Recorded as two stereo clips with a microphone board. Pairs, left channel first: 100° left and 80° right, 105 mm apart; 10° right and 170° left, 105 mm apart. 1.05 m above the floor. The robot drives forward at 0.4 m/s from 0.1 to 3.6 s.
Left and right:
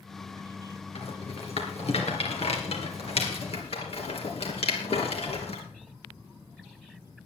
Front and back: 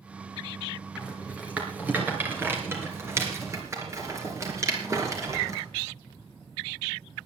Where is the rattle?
90° left, 3 m; by 5.6 s 110° left, 3 m.